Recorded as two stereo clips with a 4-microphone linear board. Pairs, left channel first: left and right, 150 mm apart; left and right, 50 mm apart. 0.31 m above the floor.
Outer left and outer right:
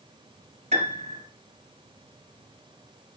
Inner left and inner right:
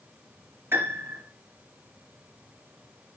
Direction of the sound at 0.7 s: 50° right (ahead or behind).